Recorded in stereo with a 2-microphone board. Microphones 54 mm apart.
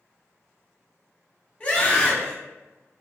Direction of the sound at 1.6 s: 30° left (ahead or behind).